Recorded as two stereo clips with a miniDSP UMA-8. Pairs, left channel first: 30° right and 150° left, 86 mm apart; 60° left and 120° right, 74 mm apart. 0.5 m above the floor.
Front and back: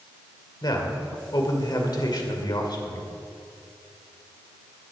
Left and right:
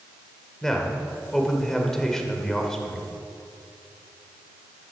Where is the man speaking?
20° right, 1.8 m.